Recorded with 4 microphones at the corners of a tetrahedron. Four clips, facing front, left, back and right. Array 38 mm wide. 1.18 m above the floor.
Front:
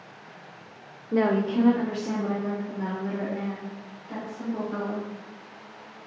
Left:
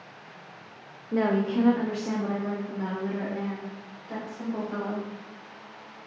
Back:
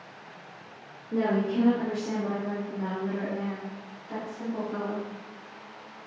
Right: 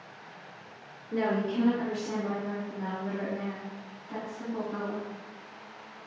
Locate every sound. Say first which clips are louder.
1.1 s a woman speaking: left 4 dB, front 3 dB; 25° left, 0.8 m; by 5.1 s 85° left, 5 m